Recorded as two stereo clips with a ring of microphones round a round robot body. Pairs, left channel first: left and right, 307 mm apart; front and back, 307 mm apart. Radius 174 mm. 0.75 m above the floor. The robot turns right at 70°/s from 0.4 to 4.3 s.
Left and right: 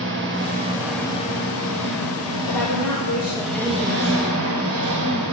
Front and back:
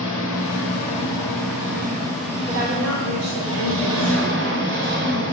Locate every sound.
0.0 s an engine running: 35° right, 3 m; by 5.3 s 125° right, 3 m
2.5 s a woman speaking: 100° left, 2.5 m; by 5.2 s 130° right, 2.5 m